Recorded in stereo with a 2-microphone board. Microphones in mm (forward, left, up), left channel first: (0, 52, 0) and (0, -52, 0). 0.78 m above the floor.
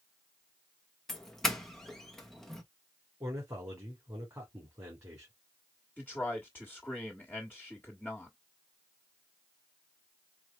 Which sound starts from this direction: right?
A man speaking, at 3.2 s.